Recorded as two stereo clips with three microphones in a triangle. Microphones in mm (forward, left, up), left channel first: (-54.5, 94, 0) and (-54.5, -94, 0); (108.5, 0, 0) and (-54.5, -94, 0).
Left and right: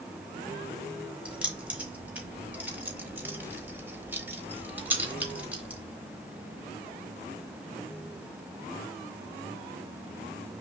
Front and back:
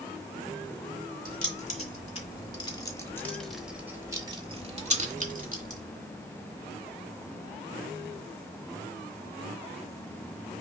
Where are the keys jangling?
10° right, 1.5 m; by 5.8 s 170° right, 1.4 m.